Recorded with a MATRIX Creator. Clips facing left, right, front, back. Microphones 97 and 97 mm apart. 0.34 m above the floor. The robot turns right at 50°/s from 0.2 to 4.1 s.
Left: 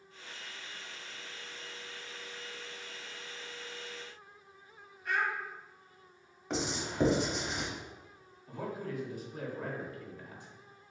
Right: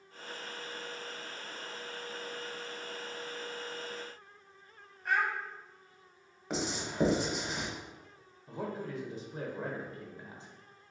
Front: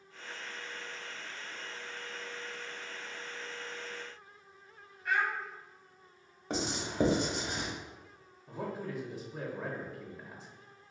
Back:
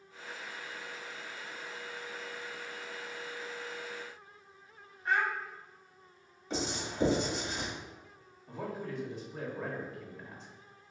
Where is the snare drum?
I don't hear a snare drum.